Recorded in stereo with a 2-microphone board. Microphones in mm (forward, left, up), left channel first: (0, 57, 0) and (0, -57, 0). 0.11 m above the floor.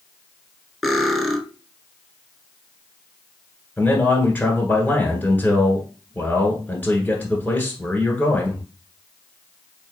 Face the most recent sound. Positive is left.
turn(degrees=15)  # may be behind; listen again after turning